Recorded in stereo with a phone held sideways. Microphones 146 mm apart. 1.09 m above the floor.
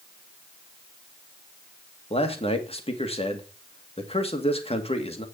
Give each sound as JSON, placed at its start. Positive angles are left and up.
{"t": 2.1, "sound": "a man speaking", "side_deg": 40, "distance_m": 2.0}